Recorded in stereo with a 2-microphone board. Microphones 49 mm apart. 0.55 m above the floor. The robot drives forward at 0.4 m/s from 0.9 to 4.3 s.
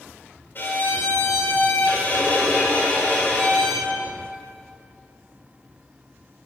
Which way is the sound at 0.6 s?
45° left (ahead or behind).